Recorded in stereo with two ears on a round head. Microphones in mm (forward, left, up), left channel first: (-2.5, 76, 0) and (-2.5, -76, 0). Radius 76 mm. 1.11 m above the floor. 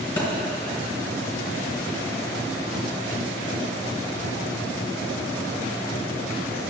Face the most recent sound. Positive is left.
turn(degrees=15)  # may be behind; listen again after turning